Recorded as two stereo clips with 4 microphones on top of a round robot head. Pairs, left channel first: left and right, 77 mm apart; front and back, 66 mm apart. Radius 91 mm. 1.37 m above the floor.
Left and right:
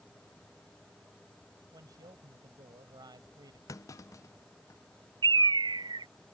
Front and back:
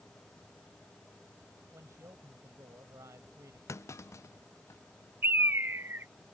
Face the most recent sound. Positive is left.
turn(degrees=-115)